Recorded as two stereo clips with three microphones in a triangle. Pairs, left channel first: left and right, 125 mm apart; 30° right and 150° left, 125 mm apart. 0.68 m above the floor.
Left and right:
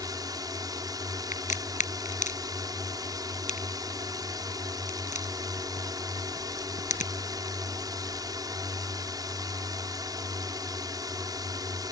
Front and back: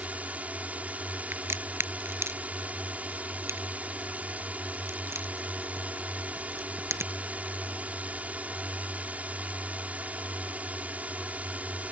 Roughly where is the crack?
Left.